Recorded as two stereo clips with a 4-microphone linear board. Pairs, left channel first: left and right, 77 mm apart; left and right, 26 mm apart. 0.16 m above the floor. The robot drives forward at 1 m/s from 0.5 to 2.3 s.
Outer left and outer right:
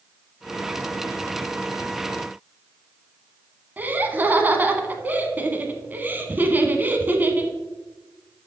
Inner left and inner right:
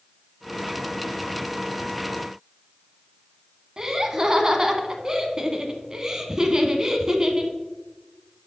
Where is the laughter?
25° right (ahead or behind), 1.0 m.